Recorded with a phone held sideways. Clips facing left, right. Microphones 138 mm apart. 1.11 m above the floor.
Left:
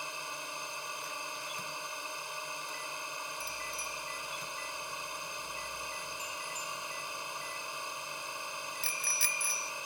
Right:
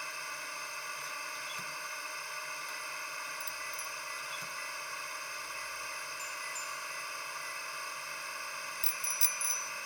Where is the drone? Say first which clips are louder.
Left 2 dB; 20° left (ahead or behind).